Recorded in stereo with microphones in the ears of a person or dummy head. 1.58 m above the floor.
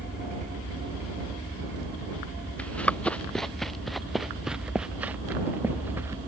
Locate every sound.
2.6 s running footsteps: 5° left (ahead or behind); by 6.2 s 10° right (ahead or behind)